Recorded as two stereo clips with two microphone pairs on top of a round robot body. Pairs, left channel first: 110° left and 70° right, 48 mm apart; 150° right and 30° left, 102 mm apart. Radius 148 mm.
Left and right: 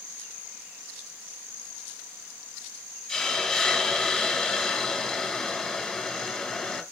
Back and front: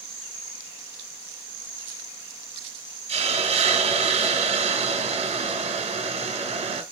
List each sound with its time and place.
3.1 s a hiss: 30° left, 2.5 m